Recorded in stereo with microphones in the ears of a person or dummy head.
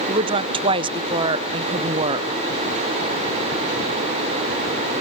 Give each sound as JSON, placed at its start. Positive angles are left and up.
{"t": 0.1, "sound": "a woman speaking", "side_deg": -35, "distance_m": 0.6}